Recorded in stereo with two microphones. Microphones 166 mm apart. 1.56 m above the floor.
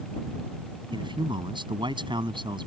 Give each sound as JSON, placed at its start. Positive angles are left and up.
{"t": 0.9, "sound": "a man speaking", "side_deg": -30}